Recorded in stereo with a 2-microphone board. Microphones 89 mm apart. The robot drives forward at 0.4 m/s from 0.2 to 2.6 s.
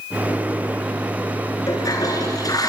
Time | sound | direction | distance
1.7 | a toilet flushing | 45° left (ahead or behind) | 4.5 m